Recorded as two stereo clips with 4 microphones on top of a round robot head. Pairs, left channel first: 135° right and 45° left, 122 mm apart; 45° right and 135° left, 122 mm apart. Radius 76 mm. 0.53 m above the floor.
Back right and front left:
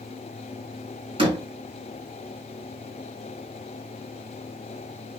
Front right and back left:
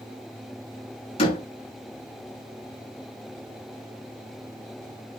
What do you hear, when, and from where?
1.2 s a door slam: 5° right, 6 m